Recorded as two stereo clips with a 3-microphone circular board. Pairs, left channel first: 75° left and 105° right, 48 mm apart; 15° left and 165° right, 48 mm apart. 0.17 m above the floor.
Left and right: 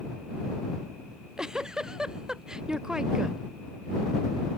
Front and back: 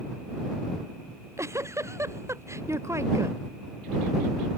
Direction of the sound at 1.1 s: Straight behind.